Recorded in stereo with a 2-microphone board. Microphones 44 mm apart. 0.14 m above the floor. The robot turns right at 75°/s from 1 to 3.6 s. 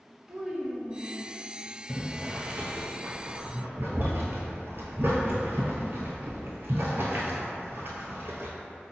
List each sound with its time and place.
0.3 s a child speaking: 15° right (ahead or behind), 0.8 m; by 1.3 s 10° right (ahead or behind), 0.8 m
1.9 s boiling: 10° left (ahead or behind), 0.7 m; by 8.5 s 55° right (ahead or behind), 0.7 m